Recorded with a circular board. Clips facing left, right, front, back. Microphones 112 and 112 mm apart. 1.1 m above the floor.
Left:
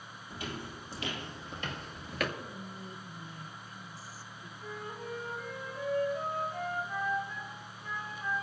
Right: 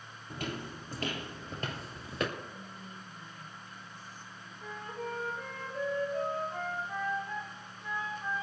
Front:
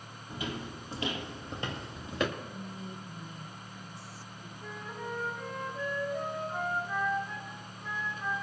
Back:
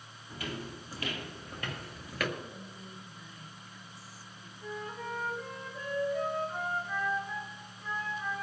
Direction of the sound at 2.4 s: 50° left.